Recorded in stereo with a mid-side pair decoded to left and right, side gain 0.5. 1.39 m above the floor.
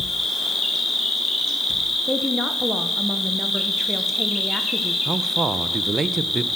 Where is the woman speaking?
5° left, 1.1 m.